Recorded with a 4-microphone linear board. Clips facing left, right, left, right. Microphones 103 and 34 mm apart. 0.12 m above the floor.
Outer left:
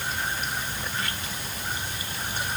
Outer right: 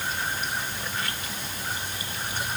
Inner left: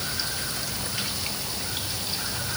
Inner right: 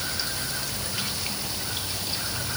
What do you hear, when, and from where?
Only background noise.